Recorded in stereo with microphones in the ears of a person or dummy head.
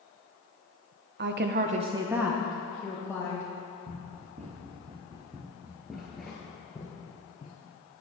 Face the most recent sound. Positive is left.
turn(degrees=30)  # may be behind; listen again after turning